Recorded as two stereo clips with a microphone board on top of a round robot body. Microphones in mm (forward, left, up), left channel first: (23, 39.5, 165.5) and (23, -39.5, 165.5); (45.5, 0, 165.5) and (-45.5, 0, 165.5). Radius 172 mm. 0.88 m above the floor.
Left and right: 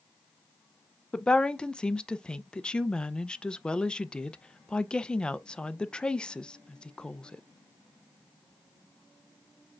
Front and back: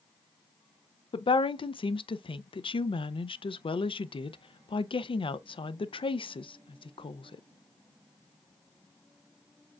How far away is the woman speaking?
About 0.6 m.